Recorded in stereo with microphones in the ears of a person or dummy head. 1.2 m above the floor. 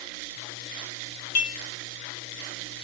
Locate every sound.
1.4 s dishes clattering: 55° left (ahead or behind), 1.4 m